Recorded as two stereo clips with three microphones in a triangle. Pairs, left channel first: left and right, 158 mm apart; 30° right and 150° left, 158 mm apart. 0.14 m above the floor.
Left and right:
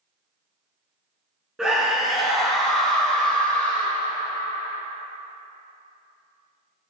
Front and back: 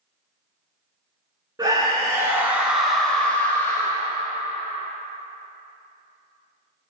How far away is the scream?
About 1.4 m.